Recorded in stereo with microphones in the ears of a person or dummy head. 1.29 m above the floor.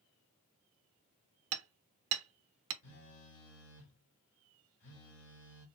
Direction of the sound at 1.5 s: 80° right.